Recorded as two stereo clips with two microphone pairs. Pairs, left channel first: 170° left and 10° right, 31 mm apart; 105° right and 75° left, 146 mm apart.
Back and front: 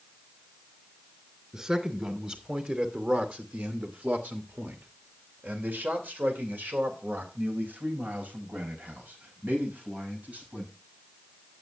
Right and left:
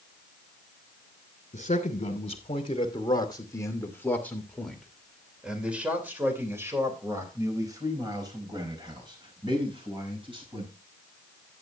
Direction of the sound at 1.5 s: 75° right.